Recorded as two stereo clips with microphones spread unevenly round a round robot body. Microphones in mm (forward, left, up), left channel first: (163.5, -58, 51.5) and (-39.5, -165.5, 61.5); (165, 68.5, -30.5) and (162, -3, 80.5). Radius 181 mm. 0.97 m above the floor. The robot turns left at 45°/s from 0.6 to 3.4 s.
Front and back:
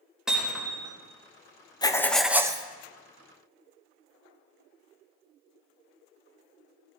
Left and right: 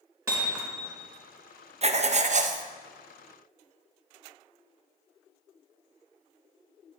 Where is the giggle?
I don't hear a giggle.